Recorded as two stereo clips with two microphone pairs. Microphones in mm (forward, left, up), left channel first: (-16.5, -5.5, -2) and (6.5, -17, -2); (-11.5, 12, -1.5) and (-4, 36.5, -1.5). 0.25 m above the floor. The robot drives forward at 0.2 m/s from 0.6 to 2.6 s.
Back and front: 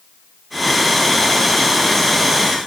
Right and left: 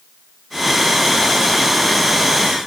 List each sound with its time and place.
Only background noise.